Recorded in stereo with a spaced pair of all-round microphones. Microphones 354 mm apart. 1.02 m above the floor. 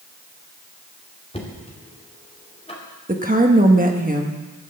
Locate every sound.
1.3 s knocking: 15° left (ahead or behind), 2.5 m
3.1 s a woman speaking: 25° right (ahead or behind), 1.2 m